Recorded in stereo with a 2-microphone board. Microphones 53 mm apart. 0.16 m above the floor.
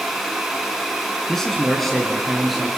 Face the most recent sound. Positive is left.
turn(degrees=0)  # may be behind; listen again after turning